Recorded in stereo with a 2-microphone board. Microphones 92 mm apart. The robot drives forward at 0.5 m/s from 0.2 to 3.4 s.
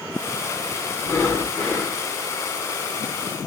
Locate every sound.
1.0 s breathing: 25° left (ahead or behind), 0.7 m; by 2.0 s 15° left (ahead or behind), 1.1 m